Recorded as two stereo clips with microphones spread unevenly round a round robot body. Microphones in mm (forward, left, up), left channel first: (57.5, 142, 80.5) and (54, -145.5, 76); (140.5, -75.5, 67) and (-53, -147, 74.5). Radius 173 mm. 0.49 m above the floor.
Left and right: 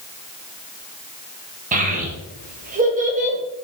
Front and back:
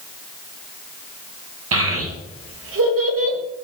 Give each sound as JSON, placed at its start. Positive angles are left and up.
{"t": 1.7, "sound": "a child speaking", "azimuth_deg": -155, "distance_m": 1.5}